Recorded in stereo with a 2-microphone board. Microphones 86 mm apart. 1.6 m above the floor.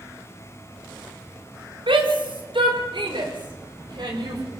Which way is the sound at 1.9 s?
85° right.